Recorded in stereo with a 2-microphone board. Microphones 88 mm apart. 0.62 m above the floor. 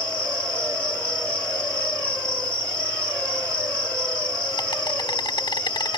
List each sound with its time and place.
0.0 s an insect: 65° left (ahead or behind)